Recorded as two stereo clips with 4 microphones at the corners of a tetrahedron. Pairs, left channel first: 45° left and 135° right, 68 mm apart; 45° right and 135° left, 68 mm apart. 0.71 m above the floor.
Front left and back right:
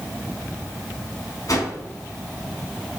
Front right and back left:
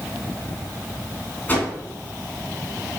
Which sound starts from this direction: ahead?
A whoosh, at 1.5 s.